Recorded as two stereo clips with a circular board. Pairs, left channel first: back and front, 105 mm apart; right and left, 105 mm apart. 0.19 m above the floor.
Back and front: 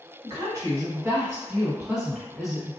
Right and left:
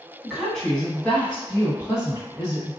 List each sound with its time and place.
0.2 s a woman speaking: 5° left, 1.6 m; by 2.7 s 90° right, 1.7 m